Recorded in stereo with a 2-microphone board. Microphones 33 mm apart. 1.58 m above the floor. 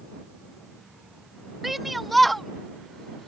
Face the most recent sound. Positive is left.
turn(degrees=10)  # may be behind; listen again after turning